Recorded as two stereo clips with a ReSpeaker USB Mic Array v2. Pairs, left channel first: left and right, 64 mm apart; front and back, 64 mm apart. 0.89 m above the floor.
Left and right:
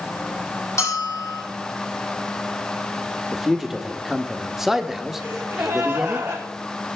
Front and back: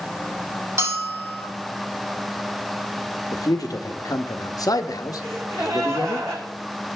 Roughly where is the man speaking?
Ahead.